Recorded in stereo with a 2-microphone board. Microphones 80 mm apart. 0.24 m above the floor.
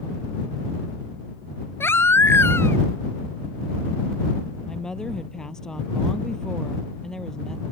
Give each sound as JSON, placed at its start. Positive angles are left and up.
{"t": 1.8, "sound": "a baby crying", "side_deg": 30}
{"t": 4.7, "sound": "a woman speaking", "side_deg": 10}